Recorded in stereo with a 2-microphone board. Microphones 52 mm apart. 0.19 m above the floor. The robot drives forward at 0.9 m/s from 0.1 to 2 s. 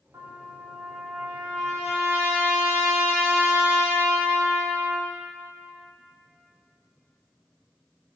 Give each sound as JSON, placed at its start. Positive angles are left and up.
{"t": 0.1, "sound": "a trumpet", "side_deg": -85, "distance_m": 2.0}